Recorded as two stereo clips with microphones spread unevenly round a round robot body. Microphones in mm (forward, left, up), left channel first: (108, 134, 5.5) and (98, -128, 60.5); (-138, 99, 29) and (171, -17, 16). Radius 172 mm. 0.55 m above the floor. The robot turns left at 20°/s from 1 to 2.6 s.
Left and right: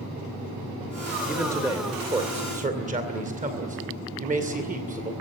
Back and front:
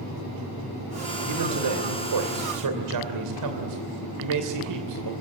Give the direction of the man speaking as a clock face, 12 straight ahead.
12 o'clock.